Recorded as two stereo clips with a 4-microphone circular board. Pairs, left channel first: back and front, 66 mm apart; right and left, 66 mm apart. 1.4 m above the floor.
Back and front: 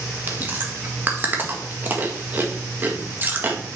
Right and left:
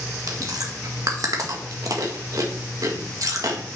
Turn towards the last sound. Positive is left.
turn(degrees=60)